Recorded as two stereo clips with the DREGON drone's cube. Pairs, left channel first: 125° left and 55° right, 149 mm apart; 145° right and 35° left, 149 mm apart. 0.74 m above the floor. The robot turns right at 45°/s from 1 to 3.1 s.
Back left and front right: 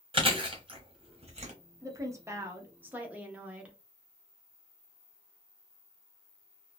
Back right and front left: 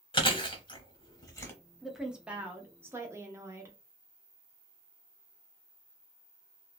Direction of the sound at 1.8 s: 55° right.